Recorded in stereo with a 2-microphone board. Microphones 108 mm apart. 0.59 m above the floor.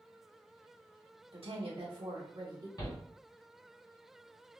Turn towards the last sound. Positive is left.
turn(degrees=40)  # may be behind; listen again after turning